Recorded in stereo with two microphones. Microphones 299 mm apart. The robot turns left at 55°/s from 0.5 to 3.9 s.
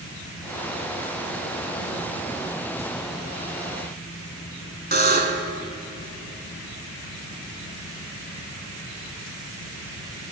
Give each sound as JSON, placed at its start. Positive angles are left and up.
{"t": 4.9, "sound": "a buzzer", "side_deg": -30, "distance_m": 1.1}